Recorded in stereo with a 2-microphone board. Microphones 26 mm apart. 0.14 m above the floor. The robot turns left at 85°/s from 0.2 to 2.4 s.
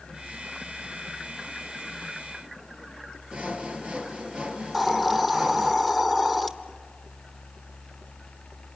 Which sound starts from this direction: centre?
A hiss, at 4.7 s.